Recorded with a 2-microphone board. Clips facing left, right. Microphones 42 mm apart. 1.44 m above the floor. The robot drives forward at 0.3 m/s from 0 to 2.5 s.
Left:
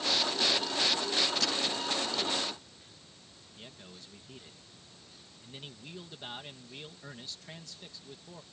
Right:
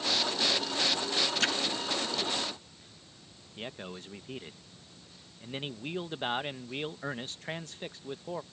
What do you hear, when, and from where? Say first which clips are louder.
1.4 s a splash: right 4 dB; 45° right (ahead or behind)
3.6 s a man speaking: right 10 dB; 45° right (ahead or behind)